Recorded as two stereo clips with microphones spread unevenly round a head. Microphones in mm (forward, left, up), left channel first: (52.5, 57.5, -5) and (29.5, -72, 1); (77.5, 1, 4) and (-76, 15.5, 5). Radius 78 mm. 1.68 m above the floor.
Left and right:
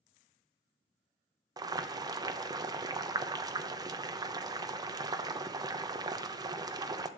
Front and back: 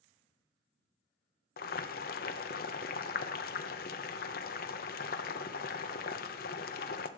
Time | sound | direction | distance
1.6 | boiling | 40° right | 0.9 m